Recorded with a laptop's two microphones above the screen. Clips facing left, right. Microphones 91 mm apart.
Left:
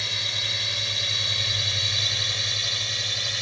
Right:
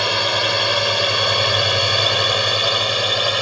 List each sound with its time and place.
0.0 s a drone: 70° right (ahead or behind); by 3.4 s 65° right (ahead or behind)